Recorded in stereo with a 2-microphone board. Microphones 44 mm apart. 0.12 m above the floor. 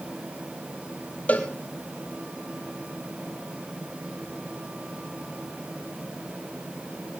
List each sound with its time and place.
1.3 s a cowbell: 35° left (ahead or behind), 2.5 m